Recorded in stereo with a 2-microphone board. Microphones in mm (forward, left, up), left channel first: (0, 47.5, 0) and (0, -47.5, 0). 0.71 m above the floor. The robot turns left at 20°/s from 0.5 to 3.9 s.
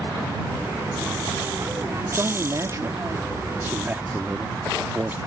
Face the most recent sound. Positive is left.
turn(degrees=-150)